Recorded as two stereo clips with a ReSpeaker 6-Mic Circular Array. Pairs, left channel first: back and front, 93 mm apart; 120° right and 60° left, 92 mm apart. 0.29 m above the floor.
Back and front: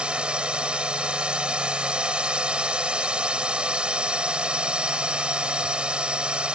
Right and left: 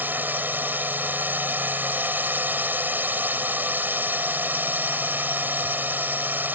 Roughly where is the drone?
Ahead left.